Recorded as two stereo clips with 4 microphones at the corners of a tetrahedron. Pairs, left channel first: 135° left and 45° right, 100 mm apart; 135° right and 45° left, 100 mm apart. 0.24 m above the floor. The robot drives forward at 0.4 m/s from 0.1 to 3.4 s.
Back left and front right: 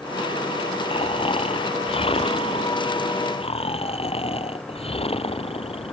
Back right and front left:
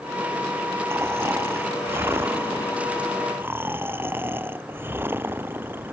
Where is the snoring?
110° left; by 5.9 s 115° left.